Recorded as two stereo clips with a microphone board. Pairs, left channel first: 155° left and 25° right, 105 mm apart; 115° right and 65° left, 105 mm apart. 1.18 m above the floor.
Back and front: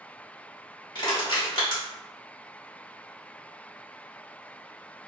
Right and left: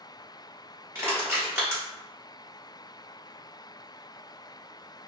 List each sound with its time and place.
0.9 s crushing: 130° left, 1.0 m